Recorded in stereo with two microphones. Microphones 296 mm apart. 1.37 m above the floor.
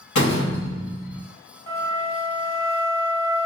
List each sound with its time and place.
0.1 s a door slam: 75° left (ahead or behind), 1.0 m
1.7 s a flute: 30° left (ahead or behind), 1.9 m